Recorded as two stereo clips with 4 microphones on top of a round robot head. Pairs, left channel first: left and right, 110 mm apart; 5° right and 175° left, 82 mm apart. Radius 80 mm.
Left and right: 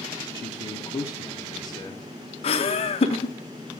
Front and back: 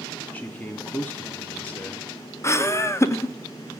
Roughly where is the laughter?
Ahead left.